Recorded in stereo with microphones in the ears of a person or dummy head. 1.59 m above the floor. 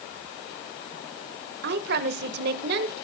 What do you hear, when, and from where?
1.6 s a woman speaking: 65° right (ahead or behind), 1.6 m